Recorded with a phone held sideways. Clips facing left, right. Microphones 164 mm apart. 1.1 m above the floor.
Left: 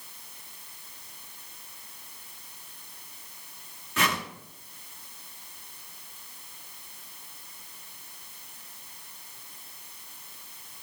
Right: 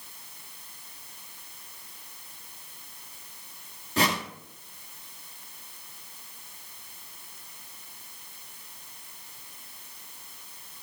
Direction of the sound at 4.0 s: 35° right (ahead or behind).